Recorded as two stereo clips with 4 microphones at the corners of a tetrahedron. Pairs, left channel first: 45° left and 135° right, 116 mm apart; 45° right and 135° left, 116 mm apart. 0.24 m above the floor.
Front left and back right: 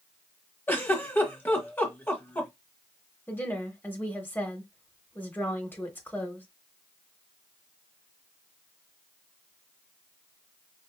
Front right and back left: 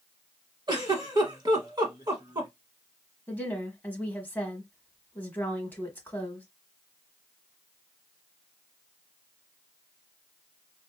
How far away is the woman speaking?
About 1.0 m.